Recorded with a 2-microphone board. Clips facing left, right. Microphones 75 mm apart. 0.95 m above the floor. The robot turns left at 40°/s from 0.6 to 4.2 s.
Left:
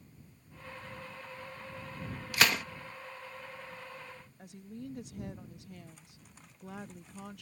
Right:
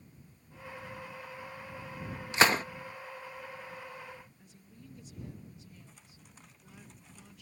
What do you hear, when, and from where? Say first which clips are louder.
2.3 s a gunshot: right 4 dB; 25° right (ahead or behind); by 2.6 s 35° right (ahead or behind)
4.4 s a woman speaking: left 10 dB; 60° left (ahead or behind)